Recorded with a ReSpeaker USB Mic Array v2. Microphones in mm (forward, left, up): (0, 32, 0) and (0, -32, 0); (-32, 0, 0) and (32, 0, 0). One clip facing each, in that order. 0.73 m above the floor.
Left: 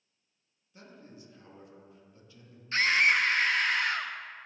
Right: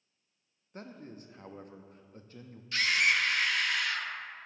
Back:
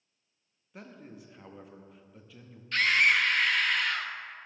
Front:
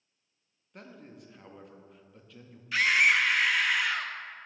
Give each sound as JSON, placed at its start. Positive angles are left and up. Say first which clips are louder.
{"t": 0.7, "sound": "a man speaking", "louder": "right 5 dB, back 1 dB", "azimuth_deg": -90, "distance_m": 0.6}
{"t": 2.7, "sound": "a scream", "louder": "left 3 dB, front 1 dB", "azimuth_deg": 80, "distance_m": 0.5}